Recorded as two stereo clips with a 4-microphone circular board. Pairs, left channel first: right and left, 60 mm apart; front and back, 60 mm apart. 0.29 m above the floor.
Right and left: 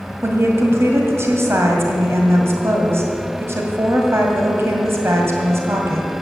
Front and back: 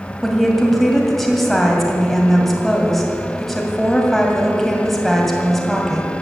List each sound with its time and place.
0.2 s a woman speaking: 85° left, 2 m